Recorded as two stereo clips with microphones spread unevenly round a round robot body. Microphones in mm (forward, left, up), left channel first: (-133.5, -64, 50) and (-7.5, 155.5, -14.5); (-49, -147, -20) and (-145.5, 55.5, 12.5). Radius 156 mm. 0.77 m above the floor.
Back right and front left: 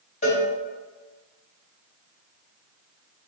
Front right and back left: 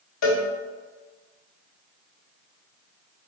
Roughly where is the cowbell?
Ahead right.